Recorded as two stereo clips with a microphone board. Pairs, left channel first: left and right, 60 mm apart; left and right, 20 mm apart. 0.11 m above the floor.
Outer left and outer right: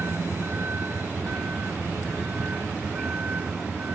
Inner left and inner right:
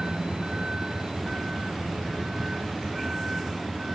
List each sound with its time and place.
0.0 s a vehicle: 40° right (ahead or behind); by 4.0 s 30° right (ahead or behind)